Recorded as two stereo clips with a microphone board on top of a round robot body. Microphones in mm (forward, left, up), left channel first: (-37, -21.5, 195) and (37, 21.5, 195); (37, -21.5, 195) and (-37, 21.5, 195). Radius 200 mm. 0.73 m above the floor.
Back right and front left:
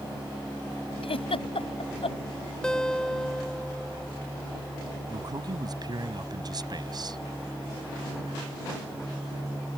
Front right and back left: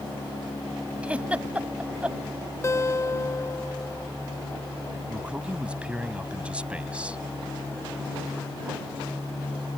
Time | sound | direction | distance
1.0 | a giggle | 135° right | ?
2.6 | a guitar | 70° right | ?
5.1 | a man speaking | 70° left | ?